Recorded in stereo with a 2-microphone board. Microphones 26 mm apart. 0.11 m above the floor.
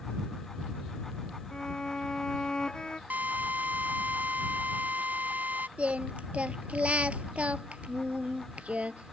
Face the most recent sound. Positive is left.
turn(degrees=-55)  # may be behind; listen again after turning